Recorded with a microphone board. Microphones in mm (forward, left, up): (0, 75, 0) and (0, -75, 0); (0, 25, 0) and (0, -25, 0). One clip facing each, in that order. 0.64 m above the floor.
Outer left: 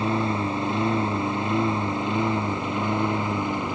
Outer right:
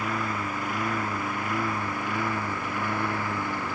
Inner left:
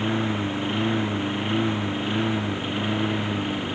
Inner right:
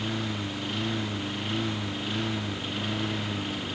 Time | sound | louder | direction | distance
0.0 | a lawn mower | outer left 6 dB, inner left 7 dB | 25° left (ahead or behind) | ?